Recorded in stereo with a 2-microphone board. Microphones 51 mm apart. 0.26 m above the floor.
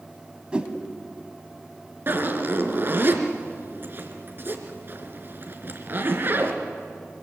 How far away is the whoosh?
About 1.9 m.